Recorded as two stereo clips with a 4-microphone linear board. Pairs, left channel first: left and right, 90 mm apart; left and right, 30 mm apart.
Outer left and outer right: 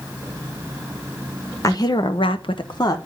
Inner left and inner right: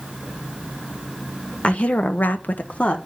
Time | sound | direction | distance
1.6 | a woman speaking | 40° left (ahead or behind) | 1.3 m